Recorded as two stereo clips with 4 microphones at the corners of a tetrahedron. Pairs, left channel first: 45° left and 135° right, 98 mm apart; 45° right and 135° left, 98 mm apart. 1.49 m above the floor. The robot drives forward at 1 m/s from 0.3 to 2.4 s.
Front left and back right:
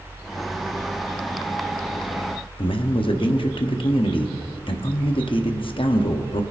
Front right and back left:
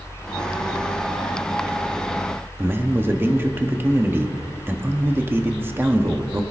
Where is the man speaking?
70° left, 0.8 m.